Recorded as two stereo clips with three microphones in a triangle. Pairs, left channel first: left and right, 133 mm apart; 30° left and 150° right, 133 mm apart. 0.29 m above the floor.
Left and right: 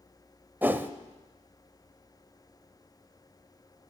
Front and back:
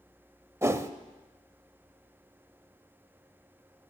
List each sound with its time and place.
0.6 s a whoosh: 135° right, 0.8 m